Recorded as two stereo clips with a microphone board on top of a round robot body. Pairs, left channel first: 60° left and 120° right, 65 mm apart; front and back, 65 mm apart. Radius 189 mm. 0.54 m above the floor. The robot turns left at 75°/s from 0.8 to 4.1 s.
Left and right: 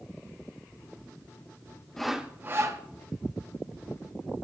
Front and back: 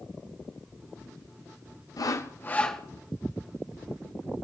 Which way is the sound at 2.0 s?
25° right.